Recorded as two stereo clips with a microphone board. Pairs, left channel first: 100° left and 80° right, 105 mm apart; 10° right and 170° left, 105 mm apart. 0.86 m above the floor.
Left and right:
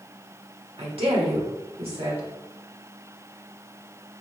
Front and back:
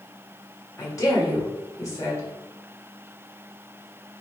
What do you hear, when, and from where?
0.8 s a woman speaking: 65° right, 1.8 m